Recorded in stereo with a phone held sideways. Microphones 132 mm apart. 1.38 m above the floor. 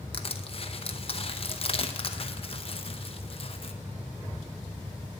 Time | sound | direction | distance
0.1 | crushing | 45° left (ahead or behind) | 0.8 m